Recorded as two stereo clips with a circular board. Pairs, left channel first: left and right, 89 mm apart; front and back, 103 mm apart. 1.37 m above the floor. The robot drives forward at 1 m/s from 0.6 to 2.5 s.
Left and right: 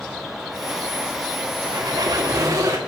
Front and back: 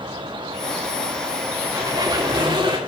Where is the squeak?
125° right, 2.5 m; by 2.8 s 135° right, 3 m.